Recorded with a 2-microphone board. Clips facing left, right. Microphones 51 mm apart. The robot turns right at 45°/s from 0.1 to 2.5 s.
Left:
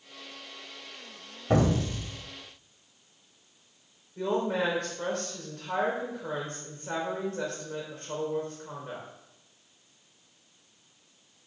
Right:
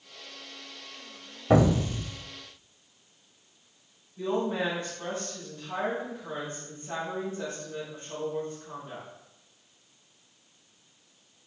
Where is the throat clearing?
No throat clearing in this recording.